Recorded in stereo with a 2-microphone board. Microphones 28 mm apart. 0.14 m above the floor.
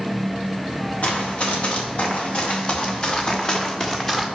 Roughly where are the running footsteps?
Left.